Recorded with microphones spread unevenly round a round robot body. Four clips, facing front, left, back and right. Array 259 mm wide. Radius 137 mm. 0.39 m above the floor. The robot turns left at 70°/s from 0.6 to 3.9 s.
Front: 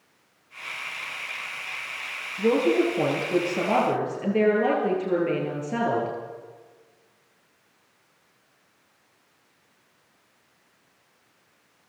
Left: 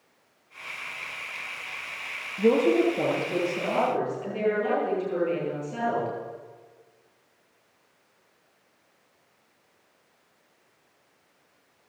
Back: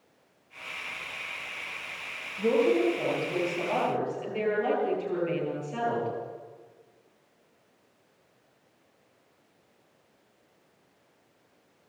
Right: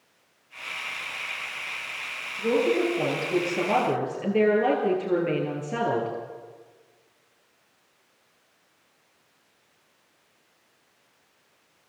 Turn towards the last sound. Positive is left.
turn(degrees=-35)